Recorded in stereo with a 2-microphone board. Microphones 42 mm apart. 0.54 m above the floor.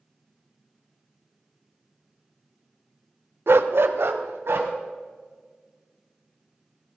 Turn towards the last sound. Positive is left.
turn(degrees=-85)